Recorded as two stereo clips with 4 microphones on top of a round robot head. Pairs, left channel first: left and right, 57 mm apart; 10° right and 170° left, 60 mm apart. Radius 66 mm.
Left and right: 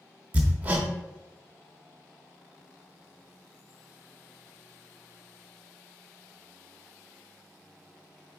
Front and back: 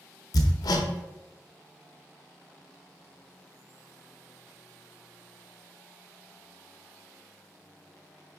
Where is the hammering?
20° right, 0.9 m.